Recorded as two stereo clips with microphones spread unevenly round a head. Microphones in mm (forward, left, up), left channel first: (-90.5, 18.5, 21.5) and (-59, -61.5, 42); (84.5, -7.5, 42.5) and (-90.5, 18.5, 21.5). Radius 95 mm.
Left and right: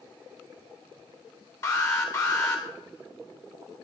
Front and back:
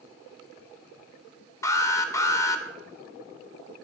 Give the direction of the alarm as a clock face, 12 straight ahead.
10 o'clock.